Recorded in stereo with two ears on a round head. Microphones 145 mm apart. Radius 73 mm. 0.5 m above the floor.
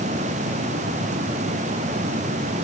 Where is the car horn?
I don't hear a car horn.